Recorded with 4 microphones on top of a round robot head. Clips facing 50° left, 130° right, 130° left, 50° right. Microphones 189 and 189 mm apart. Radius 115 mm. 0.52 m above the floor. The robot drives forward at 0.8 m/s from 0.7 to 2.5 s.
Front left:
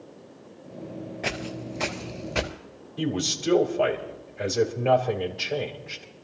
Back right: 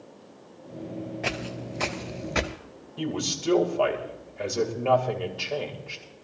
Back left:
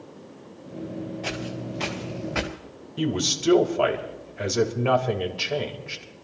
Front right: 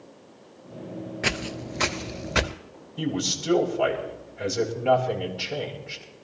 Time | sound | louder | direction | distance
1.2 | footsteps | even, even | 35° right | 0.7 m
3.0 | a man speaking | front left 2 dB, back left 2 dB | 130° left | 3 m